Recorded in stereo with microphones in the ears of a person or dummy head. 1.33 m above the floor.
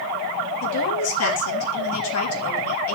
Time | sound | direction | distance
0.6 | a woman speaking | 80° left | 3 m